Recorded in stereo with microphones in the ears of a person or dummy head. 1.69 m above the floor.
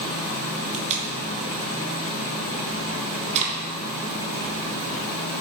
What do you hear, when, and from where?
0.7 s tape being pulled: 35° right (ahead or behind), 2.5 m